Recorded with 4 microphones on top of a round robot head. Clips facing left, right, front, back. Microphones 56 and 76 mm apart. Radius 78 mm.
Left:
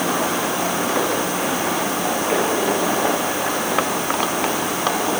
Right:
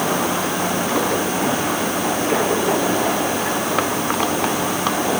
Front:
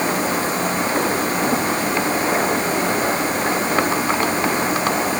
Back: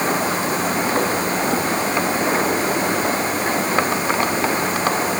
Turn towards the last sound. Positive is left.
No sound to turn to.